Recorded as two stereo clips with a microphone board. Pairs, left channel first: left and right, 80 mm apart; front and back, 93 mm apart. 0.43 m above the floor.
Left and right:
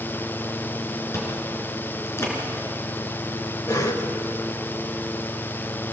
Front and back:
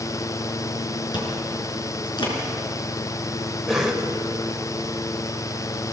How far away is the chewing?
About 4.5 m.